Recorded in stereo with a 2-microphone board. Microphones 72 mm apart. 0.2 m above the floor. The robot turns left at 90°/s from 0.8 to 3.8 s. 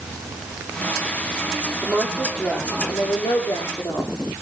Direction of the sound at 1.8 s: 135° right.